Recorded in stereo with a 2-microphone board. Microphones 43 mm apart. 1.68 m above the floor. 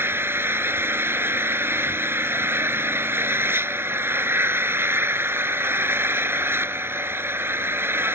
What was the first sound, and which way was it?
An engine running, 60° right (ahead or behind).